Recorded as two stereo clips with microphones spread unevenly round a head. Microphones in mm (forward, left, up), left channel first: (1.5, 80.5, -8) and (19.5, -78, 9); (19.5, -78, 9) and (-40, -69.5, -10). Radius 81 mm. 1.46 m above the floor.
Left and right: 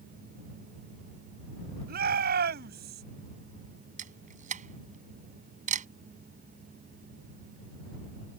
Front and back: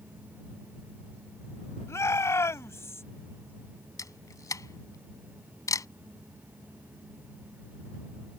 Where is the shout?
50° right; by 3.0 s 55° right.